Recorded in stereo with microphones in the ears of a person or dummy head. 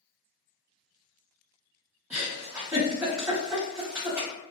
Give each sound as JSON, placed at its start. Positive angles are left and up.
{"t": 2.1, "sound": "a giggle", "side_deg": -10, "distance_m": 1.3}